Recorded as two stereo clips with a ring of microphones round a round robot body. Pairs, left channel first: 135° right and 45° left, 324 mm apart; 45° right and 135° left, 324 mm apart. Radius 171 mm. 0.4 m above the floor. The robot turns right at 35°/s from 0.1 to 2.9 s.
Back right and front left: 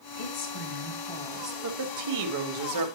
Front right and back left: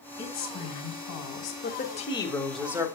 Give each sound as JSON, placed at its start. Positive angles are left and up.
{"t": 0.2, "sound": "a woman speaking", "azimuth_deg": -100, "distance_m": 2.0}
{"t": 1.6, "sound": "a woman speaking", "azimuth_deg": 10, "distance_m": 1.9}